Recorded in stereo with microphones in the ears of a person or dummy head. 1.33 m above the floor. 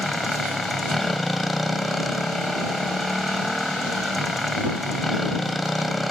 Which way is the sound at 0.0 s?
5° left (ahead or behind).